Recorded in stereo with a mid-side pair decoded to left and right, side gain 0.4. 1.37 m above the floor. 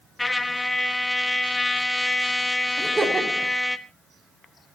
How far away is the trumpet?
About 1.3 m.